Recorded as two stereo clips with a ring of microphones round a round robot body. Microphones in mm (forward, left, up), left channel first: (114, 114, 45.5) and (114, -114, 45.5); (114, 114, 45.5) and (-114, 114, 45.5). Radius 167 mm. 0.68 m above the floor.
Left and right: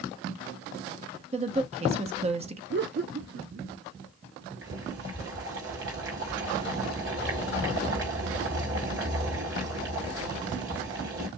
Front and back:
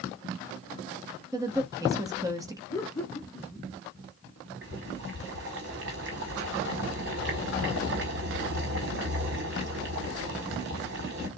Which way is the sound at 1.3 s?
120° right.